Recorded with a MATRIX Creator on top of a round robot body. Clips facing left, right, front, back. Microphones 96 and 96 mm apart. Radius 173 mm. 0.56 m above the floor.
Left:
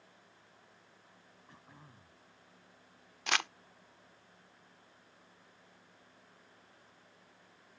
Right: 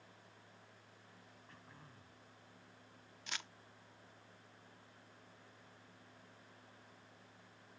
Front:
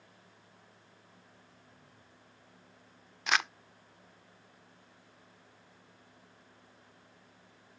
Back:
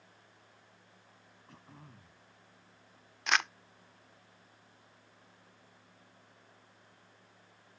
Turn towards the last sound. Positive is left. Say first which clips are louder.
# left 15 dB, even
turn(degrees=85)